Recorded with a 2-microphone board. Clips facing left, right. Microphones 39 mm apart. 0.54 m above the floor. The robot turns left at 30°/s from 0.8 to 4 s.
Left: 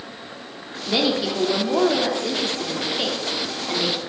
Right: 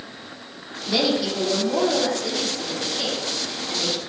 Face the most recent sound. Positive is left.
turn(degrees=50)